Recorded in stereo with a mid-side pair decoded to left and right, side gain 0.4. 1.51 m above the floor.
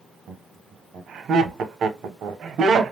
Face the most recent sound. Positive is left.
turn(degrees=-65)